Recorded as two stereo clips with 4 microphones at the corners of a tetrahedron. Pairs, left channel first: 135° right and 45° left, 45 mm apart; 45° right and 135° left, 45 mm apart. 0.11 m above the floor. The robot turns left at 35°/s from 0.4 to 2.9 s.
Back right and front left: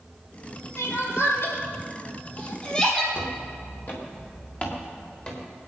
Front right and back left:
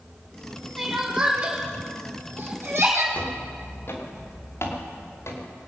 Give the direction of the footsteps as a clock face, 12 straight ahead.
3 o'clock.